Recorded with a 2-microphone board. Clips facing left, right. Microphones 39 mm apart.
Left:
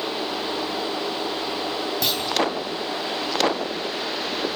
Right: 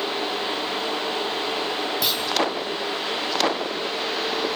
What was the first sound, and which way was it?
A clunk, 5° right (ahead or behind).